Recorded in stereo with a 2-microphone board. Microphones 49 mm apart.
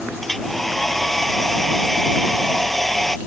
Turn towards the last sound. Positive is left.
turn(degrees=5)  # may be behind; listen again after turning